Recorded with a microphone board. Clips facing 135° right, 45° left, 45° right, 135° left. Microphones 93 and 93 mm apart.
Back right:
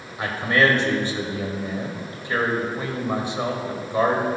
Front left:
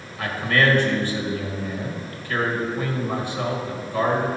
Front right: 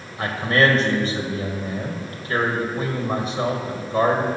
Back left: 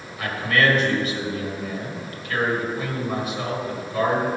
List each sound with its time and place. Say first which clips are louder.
0.2 s a man speaking: back right 1 dB, front right 2 dB; 80° right, 1.7 m